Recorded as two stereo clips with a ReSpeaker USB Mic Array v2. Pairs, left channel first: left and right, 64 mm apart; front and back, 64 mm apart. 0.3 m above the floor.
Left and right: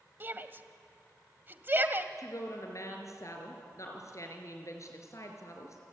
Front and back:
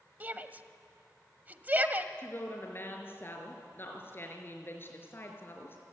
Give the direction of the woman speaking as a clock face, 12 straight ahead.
10 o'clock.